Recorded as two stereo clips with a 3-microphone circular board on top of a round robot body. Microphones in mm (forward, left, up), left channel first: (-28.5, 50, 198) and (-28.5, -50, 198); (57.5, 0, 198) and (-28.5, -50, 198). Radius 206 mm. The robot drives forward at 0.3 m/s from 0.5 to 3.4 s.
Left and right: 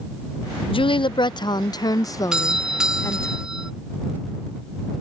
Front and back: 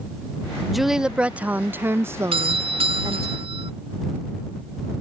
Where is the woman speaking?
120° left; by 3.3 s 155° left.